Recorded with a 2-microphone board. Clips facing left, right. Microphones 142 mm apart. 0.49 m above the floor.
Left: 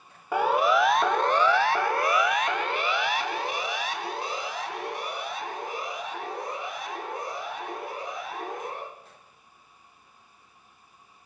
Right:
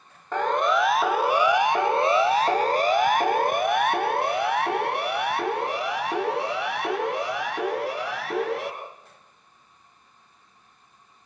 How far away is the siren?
About 2.5 m.